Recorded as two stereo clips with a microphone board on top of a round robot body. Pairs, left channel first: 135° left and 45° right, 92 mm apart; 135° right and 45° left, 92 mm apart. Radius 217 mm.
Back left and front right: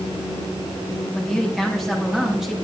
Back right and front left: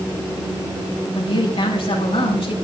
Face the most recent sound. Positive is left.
turn(degrees=-130)